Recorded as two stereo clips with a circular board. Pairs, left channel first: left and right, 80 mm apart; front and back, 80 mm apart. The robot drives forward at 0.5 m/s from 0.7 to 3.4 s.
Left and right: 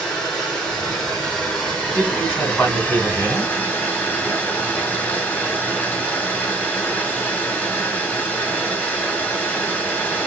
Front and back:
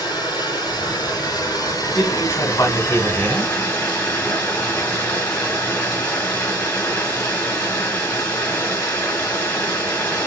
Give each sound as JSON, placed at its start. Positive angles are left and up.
{"t": 0.0, "sound": "running water", "azimuth_deg": 10, "distance_m": 2.0}
{"t": 1.9, "sound": "a man speaking", "azimuth_deg": 30, "distance_m": 2.0}